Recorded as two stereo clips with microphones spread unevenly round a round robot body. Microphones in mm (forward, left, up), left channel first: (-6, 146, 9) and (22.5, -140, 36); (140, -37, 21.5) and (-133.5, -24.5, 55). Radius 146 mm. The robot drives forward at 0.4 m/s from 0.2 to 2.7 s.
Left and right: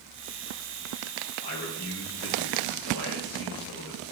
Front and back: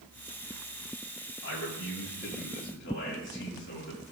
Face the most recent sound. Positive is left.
turn(degrees=50)